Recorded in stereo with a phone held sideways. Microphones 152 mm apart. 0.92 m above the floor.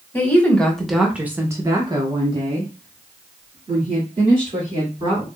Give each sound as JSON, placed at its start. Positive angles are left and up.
{"t": 0.1, "sound": "a woman speaking", "side_deg": 15, "distance_m": 1.1}